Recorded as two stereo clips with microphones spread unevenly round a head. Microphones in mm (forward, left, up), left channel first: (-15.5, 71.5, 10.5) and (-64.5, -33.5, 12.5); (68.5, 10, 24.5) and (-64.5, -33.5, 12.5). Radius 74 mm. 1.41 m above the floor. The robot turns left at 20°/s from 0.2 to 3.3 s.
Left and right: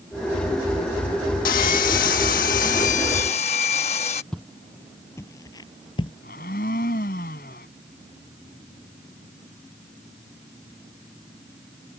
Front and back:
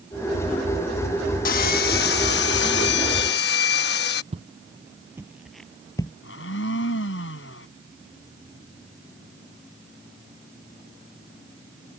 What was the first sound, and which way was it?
Sawing, 50° left.